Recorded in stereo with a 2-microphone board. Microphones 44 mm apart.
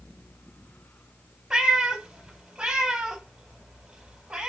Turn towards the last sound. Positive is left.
turn(degrees=-15)  # may be behind; listen again after turning